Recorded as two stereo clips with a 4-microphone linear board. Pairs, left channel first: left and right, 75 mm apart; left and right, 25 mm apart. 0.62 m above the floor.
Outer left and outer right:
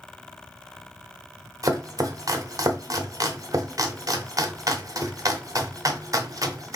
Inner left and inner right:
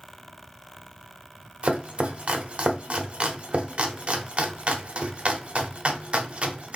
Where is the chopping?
45° right (ahead or behind), 0.7 m.